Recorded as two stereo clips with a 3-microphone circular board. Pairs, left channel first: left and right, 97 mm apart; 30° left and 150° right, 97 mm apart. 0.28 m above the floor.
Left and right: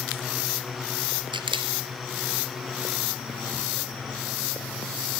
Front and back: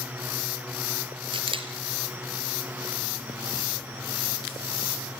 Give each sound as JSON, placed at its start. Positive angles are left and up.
{"t": 1.3, "sound": "a camera shutter", "azimuth_deg": -125, "distance_m": 2.5}